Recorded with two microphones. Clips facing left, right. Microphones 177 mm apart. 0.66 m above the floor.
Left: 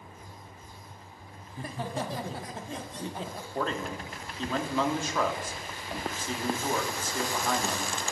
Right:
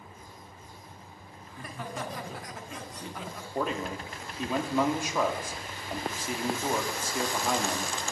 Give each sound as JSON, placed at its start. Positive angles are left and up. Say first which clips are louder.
{"t": 1.5, "sound": "laughter", "louder": "left 4 dB", "side_deg": 30, "distance_m": 1.4}
{"t": 3.5, "sound": "a man speaking", "louder": "right 1 dB", "side_deg": -10, "distance_m": 1.5}